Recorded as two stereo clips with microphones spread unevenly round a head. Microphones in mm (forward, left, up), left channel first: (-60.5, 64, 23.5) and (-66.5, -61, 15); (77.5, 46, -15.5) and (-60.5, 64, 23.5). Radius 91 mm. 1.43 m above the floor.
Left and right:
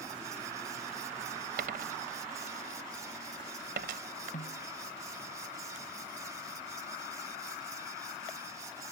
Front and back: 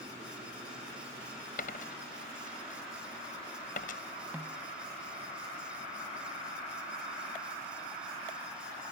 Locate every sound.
1.6 s a dropped coin: 60° right
4.3 s a snare drum: 95° left